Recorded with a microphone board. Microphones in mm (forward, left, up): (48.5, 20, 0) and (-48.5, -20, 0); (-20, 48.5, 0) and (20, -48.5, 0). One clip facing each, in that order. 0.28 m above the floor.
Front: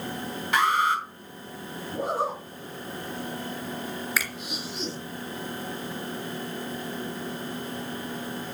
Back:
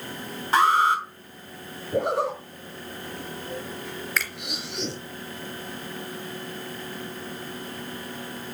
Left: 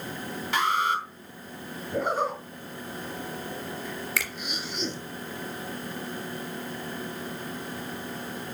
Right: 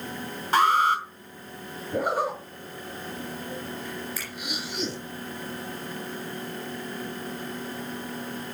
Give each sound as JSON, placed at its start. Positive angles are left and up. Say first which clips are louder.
{"t": 0.5, "sound": "an alarm", "louder": "back 4 dB, right 5 dB", "azimuth_deg": -110, "distance_m": 3.5}
{"t": 1.9, "sound": "a zipper", "louder": "back 4 dB, right 1 dB", "azimuth_deg": -145, "distance_m": 4.5}
{"t": 4.2, "sound": "a finger snap", "louder": "back 1 dB, left 6 dB", "azimuth_deg": 105, "distance_m": 3.0}